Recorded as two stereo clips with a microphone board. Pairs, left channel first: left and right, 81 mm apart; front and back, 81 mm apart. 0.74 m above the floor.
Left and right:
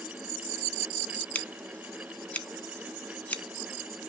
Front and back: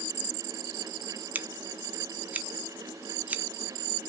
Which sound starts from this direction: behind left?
Scissors, at 1.4 s.